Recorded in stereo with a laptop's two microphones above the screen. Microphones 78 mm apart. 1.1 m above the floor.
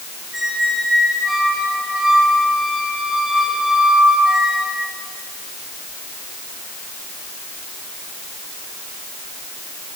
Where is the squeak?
5° right (ahead or behind), 3 m.